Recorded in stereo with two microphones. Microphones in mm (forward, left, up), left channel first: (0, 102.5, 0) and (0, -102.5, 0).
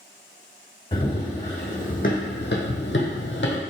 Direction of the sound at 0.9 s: 25° left (ahead or behind).